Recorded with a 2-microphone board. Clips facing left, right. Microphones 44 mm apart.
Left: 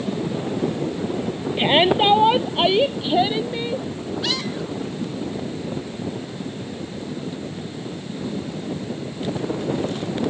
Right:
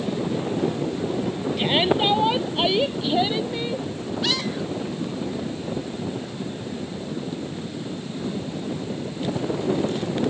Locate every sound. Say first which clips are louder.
1.6 s a shout: left 5 dB; 30° left (ahead or behind); by 3.9 s 10° left (ahead or behind)